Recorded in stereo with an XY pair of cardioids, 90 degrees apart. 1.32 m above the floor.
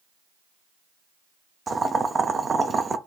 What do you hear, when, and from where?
1.7 s boiling: 35° right, 0.7 m